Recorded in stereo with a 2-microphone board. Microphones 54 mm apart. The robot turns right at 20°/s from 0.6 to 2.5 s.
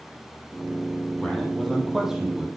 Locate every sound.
1.2 s a man speaking: 10° left (ahead or behind), 4.5 m; by 2.5 s 15° right (ahead or behind), 4.5 m